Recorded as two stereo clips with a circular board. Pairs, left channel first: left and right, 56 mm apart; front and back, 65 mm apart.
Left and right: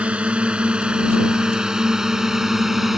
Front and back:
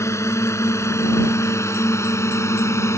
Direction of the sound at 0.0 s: 25° right.